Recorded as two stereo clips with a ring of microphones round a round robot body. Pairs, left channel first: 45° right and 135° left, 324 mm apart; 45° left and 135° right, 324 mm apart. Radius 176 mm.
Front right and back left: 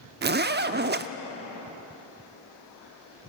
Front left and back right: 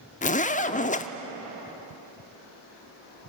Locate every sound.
0.2 s a zipper: 100° left, 0.8 m